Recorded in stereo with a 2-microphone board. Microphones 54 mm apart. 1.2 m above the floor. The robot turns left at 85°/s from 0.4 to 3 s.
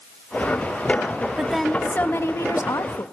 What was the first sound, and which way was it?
A woman speaking, 160° right.